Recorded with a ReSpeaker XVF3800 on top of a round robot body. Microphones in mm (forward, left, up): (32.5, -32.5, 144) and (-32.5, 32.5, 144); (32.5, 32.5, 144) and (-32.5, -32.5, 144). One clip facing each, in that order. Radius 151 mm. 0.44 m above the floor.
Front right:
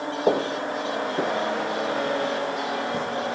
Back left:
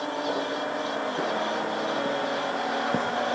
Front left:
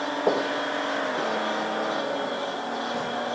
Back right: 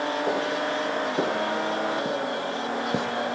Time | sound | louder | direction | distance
0.3 | footsteps | front right 9 dB, front left 1 dB | 25° right | 1.0 m